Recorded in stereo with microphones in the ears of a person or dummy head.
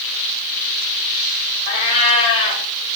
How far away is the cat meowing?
About 1.2 m.